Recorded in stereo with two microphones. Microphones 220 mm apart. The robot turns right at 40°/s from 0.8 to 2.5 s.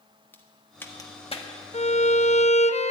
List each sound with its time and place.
0.3 s a crack: 10° left (ahead or behind), 1.4 m; by 1.5 s 30° left (ahead or behind), 1.4 m
1.7 s a violin: 70° left, 0.6 m; by 2.9 s 100° left, 0.6 m